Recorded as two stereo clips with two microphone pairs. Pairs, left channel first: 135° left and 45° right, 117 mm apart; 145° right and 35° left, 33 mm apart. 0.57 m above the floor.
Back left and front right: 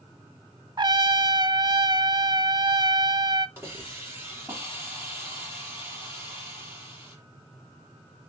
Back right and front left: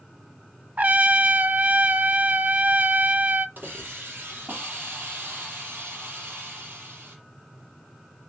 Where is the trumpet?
5° left, 0.7 m.